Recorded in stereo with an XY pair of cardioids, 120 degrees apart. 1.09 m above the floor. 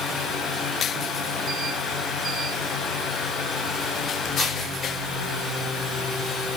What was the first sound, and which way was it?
A fan, 55° left.